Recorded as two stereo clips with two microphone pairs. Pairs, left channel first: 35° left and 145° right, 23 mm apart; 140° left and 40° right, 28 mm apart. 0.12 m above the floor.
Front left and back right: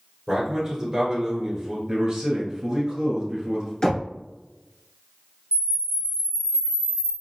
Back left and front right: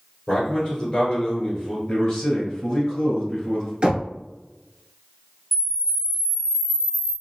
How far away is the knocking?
About 0.9 m.